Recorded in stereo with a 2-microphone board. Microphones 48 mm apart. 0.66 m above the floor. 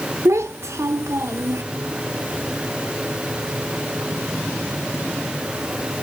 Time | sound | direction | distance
0.2 | a child speaking | 75° right (ahead or behind) | 0.7 m